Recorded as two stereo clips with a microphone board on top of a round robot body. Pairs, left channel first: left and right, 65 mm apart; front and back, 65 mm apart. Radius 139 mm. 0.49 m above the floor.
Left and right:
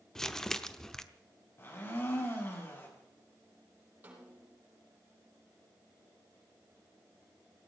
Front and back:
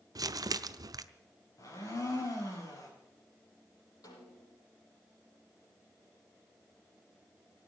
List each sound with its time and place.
0.1 s crumpling: 170° left, 0.9 m
1.6 s a blender: 35° left, 5 m
4.0 s a snare drum: 25° right, 5 m